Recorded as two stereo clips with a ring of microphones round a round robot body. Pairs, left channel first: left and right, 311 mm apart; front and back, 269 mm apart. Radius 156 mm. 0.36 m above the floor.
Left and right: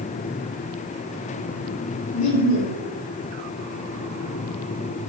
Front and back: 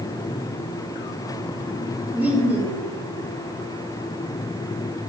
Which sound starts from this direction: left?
Laughter, at 2.1 s.